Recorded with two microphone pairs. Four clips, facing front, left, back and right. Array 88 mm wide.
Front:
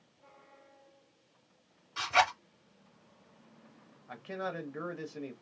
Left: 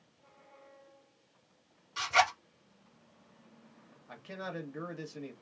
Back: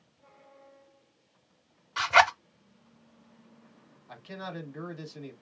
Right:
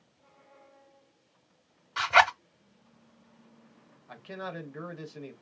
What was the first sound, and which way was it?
A zipper, 120° right.